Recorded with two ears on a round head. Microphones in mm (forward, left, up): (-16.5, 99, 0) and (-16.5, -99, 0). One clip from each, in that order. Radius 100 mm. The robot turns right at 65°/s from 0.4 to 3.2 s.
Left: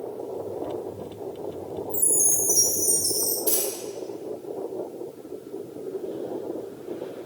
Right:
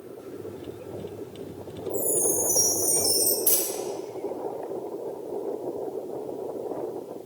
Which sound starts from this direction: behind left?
A chime, at 1.9 s.